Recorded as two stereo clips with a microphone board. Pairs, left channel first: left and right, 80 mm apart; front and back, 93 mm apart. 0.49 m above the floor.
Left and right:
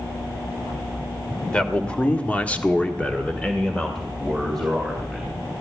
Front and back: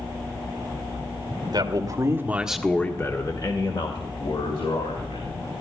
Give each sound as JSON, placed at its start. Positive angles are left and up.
{"t": 1.5, "sound": "a man speaking", "azimuth_deg": 165, "distance_m": 1.9}